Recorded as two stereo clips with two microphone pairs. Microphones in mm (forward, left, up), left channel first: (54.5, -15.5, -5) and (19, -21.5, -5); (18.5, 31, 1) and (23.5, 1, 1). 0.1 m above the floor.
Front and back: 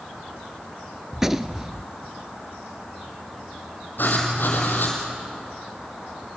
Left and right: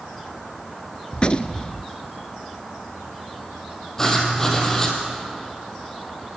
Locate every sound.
1.1 s a gunshot: 110° left, 0.6 m
4.0 s writing: 25° left, 3.5 m